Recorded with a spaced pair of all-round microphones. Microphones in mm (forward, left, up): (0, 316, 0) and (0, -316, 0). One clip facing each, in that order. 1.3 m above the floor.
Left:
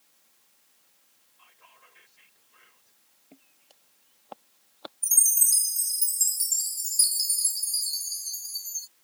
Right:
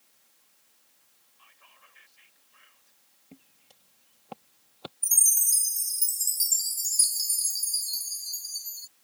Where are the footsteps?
45° right (ahead or behind); by 4.9 s 55° right (ahead or behind).